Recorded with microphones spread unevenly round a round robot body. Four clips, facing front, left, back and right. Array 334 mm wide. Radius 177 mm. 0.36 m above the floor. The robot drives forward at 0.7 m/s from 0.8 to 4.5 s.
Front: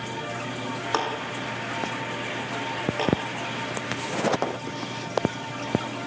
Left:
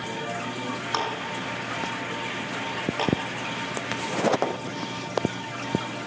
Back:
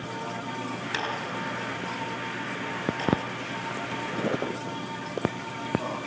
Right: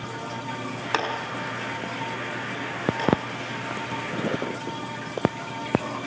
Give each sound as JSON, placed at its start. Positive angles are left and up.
{"t": 0.9, "sound": "a clap", "azimuth_deg": -35, "distance_m": 5.0}
{"t": 3.0, "sound": "a clap", "azimuth_deg": 10, "distance_m": 9.0}